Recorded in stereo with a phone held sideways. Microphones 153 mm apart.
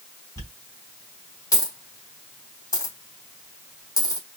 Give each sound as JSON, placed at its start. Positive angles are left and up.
{"t": 0.4, "sound": "a dropped coin", "side_deg": 20, "distance_m": 3.5}